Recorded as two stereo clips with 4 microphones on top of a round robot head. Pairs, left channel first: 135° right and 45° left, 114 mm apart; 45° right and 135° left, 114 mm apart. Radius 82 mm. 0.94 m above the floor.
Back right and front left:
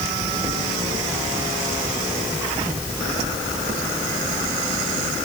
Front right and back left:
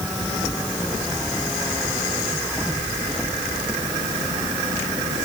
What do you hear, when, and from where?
Only background noise.